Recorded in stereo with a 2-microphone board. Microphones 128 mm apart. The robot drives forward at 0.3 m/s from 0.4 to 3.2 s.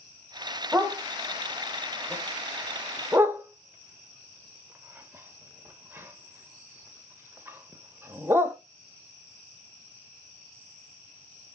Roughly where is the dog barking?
Centre.